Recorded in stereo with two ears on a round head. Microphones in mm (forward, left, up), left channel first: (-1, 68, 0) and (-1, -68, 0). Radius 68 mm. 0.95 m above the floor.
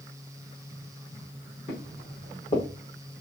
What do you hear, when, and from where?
1.7 s footsteps: 45° left (ahead or behind), 4.5 m